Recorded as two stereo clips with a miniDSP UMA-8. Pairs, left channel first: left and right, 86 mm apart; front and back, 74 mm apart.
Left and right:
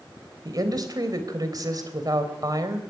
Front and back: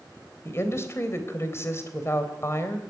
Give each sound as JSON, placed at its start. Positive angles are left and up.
{"t": 0.5, "sound": "a woman speaking", "azimuth_deg": -50, "distance_m": 3.0}